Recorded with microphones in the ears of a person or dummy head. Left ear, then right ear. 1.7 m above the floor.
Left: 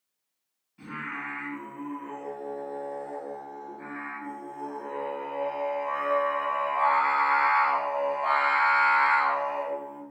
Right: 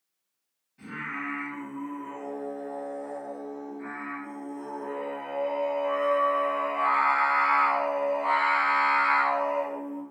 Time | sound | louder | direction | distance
0.8 | singing | right 1 dB | 15° left (ahead or behind) | 1.1 m